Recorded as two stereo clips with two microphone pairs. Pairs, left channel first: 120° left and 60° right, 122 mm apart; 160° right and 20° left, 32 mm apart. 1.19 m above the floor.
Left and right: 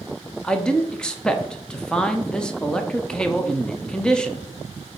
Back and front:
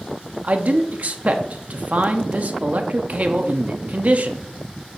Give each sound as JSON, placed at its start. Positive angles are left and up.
{"t": 0.4, "sound": "a man speaking", "azimuth_deg": 40, "distance_m": 0.8}